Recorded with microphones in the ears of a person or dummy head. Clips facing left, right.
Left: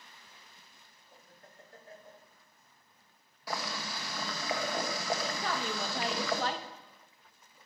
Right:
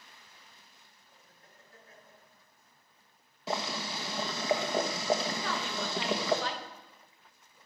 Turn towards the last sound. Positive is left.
turn(degrees=45)  # may be behind; listen again after turning